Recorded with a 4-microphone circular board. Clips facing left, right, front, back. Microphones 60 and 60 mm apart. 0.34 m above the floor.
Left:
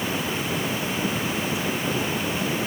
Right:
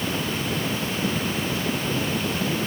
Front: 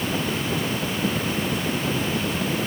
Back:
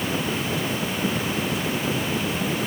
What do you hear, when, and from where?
Only background noise.